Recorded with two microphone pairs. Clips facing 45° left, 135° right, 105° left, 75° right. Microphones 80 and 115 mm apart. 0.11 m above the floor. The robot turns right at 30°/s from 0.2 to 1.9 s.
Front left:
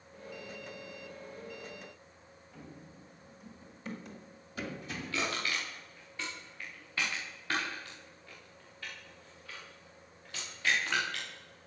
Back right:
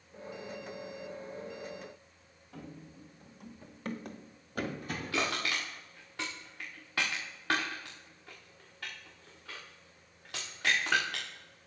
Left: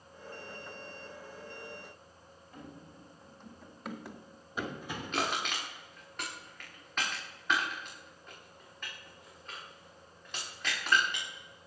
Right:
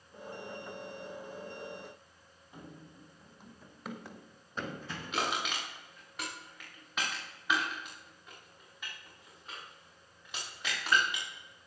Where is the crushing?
160° right, 6.5 m.